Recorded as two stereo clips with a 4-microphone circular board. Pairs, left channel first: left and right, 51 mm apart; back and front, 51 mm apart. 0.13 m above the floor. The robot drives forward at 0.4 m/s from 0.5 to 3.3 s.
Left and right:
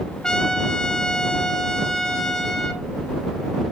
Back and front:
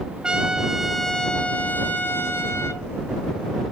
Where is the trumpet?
40° left, 0.5 m; by 2.8 s 170° left, 0.9 m.